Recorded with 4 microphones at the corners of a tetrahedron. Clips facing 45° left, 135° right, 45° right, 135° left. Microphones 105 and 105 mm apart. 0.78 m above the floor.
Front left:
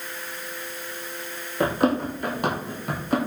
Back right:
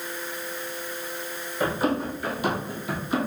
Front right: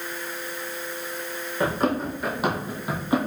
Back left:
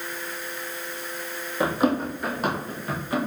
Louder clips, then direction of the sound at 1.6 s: Front left 3 dB, back left 1 dB; 55° left.